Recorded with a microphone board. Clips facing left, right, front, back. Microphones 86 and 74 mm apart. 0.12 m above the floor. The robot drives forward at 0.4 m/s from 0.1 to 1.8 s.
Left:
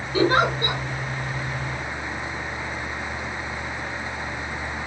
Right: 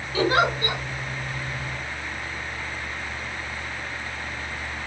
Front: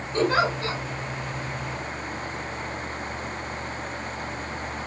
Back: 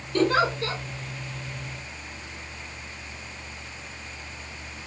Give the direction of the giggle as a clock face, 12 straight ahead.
10 o'clock.